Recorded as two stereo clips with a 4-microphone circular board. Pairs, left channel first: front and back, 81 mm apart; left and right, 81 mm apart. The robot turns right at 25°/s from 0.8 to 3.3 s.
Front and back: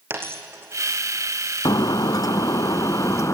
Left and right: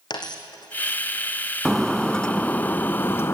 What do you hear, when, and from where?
0.1 s a dropped coin: 120° left, 2.5 m; by 1.0 s 125° left, 2.5 m
1.6 s breaking glass: straight ahead, 0.6 m; by 3.4 s 40° left, 0.6 m